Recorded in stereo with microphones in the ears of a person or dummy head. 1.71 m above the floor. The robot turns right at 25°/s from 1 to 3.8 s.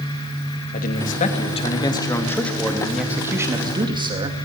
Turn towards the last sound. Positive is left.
turn(degrees=-155)